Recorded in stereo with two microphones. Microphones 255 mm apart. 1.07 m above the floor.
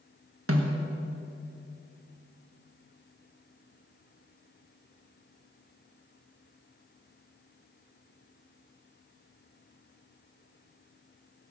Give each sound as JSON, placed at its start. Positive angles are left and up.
{"t": 0.5, "sound": "a snare drum", "side_deg": -60, "distance_m": 1.5}